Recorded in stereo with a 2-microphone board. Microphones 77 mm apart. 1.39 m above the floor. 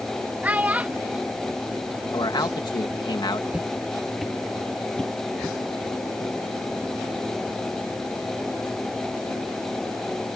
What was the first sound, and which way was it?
A child speaking, 20° right (ahead or behind).